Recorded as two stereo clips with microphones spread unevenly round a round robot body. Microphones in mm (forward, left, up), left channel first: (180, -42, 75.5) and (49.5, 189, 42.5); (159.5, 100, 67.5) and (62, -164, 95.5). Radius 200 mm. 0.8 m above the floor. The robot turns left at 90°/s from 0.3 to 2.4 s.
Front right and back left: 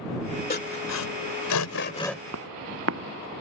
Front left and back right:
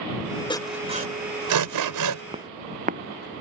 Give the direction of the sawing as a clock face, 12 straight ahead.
12 o'clock.